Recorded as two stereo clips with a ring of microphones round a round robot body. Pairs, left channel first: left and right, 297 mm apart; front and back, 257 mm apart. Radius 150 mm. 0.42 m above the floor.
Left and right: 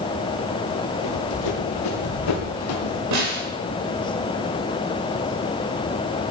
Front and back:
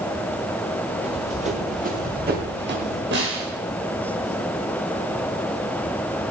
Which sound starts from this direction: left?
Running footsteps, at 1.0 s.